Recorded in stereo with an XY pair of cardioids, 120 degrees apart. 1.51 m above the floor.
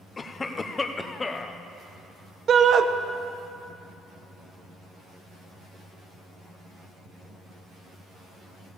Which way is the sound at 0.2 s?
25° left.